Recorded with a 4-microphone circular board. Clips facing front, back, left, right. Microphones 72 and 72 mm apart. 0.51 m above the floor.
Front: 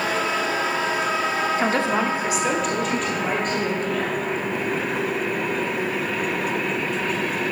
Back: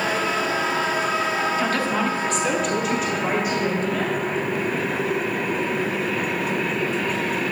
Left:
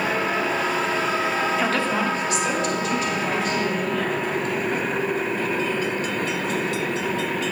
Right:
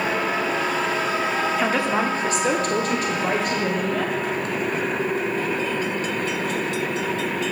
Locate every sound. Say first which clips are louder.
1.6 s a woman speaking: front 1 dB, right 1 dB; 5° right, 1.0 m; by 4.2 s 105° right, 3 m